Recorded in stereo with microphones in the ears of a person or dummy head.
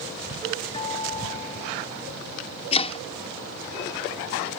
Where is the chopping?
35° left (ahead or behind).